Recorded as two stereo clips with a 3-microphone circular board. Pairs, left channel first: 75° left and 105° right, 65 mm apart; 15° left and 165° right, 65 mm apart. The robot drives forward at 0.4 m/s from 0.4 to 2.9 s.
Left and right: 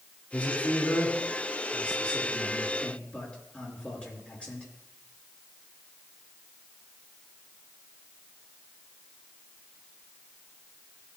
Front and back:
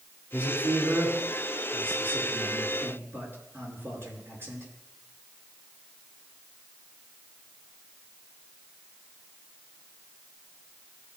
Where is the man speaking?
135° left, 3 m; by 4.7 s 150° left, 4 m.